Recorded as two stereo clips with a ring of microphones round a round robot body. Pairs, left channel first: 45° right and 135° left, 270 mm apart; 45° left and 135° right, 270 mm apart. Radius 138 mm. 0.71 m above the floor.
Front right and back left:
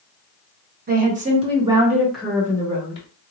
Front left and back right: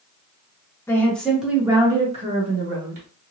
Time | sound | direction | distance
0.9 | a woman speaking | 120° left | 1.2 m